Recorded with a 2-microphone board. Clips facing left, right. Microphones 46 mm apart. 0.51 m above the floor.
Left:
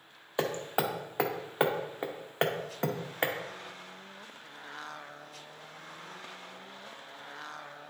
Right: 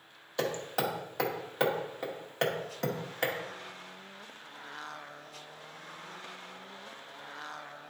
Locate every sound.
0.4 s hammering: 20° left (ahead or behind), 0.7 m